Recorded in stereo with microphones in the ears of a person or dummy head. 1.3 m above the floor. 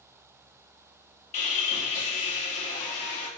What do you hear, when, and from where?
1.3 s sawing: 40° left (ahead or behind), 2 m